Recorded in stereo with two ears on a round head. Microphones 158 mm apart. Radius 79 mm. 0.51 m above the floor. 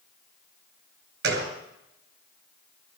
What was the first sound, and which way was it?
A gunshot, 60° right (ahead or behind).